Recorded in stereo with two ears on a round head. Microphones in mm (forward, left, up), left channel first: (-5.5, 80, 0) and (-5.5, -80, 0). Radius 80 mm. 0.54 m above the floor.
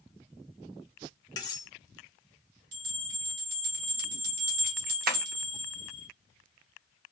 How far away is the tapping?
About 0.8 m.